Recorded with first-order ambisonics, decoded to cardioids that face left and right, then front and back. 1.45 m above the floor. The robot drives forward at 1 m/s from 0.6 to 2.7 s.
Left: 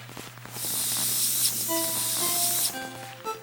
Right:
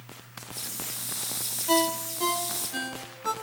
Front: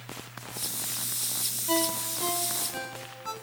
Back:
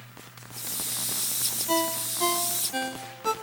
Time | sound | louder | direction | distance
1.7 | a ringtone | right 5 dB, back 1 dB | 90° right | 0.5 m